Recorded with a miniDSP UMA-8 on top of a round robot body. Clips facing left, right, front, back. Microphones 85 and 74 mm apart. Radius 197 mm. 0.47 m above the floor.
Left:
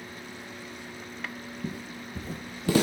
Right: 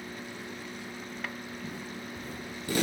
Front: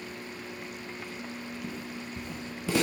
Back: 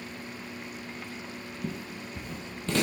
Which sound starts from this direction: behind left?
Footsteps, at 1.6 s.